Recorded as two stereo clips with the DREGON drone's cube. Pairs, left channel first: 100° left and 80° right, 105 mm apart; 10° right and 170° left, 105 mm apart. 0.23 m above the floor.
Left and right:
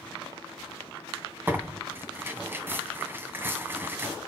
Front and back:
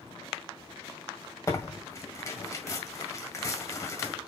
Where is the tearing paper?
35° right, 1.8 m.